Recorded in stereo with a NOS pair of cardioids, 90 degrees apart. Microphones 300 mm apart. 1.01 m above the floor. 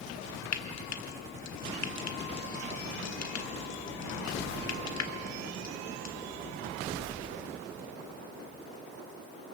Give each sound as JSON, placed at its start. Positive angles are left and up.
{"t": 0.5, "sound": "frying", "azimuth_deg": 65, "distance_m": 1.7}